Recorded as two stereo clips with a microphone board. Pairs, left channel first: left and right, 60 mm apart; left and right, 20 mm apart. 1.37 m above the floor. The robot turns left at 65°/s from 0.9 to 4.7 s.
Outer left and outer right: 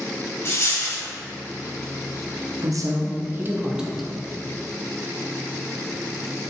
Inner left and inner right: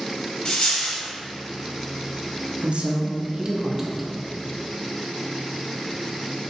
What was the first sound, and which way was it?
A dropped coin, 35° left (ahead or behind).